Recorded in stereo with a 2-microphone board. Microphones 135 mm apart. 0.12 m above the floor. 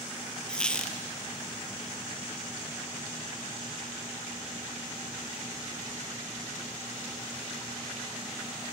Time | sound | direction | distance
0.5 | a squeak | 10° left (ahead or behind) | 1.4 m